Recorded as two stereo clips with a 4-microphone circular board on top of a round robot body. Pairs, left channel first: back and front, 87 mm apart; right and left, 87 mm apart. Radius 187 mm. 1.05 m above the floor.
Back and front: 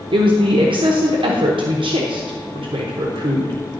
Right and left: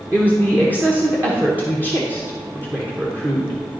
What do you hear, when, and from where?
0.1 s a woman speaking: 20° left, 1.0 m